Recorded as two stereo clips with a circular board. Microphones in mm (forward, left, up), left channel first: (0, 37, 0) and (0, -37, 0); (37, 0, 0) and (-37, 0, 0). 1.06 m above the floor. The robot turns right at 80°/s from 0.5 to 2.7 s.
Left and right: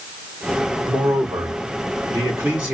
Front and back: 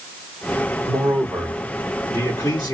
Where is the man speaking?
155° right, 3 m; by 2.7 s 10° right, 3 m.